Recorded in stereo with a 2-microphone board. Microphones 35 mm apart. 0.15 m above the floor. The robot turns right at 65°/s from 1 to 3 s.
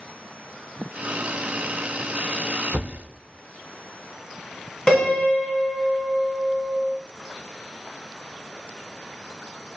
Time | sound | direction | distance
2.7 | a thud | 50° right (ahead or behind) | 0.9 m
4.9 | a piano | 15° left (ahead or behind) | 1.2 m